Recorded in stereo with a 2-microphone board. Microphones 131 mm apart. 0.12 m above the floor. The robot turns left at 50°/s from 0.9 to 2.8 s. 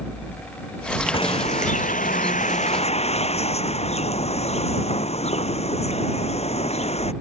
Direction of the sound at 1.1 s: 135° left.